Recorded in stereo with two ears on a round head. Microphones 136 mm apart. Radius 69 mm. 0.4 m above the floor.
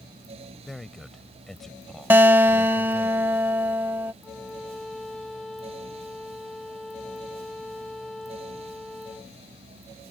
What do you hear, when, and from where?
0.6 s a man speaking: centre (ahead or behind)
2.1 s a guitar: 15° right (ahead or behind)
4.2 s a violin: centre (ahead or behind)